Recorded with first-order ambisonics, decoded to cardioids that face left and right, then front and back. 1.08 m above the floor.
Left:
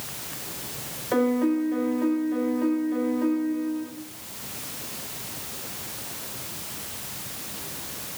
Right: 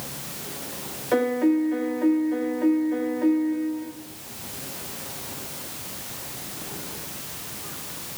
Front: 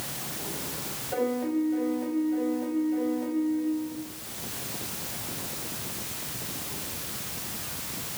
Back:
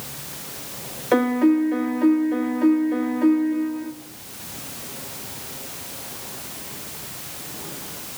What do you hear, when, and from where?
1.1 s a piano: 170° right, 1.7 m